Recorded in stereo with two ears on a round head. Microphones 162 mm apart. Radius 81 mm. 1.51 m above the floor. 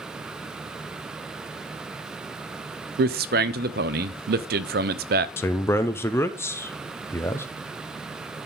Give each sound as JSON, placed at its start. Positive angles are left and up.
{"t": 3.0, "sound": "a man speaking", "side_deg": -55, "distance_m": 0.5}
{"t": 5.4, "sound": "a man speaking", "side_deg": 15, "distance_m": 0.6}